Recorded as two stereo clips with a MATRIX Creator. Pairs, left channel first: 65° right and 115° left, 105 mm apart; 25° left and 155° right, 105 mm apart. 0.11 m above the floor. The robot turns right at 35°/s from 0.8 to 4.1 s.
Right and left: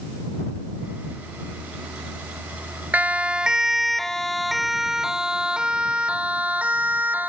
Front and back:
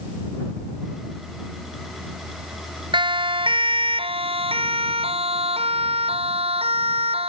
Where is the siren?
175° right.